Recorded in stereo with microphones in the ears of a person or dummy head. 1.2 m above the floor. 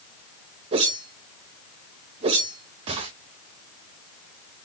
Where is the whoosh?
30° right (ahead or behind), 0.6 m.